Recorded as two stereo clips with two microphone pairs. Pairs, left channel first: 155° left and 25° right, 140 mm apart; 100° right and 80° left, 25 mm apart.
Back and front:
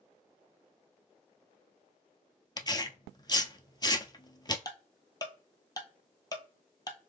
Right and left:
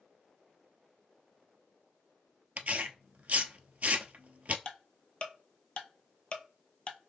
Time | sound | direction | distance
2.6 | tearing paper | 95° left | 0.6 m
4.7 | ticking | 145° right | 0.7 m